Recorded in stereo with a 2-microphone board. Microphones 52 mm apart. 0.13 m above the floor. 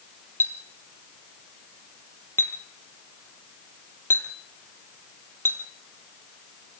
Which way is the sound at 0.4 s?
50° left (ahead or behind).